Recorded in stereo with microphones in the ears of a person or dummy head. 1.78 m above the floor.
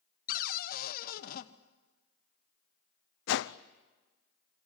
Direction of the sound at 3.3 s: 70° left (ahead or behind).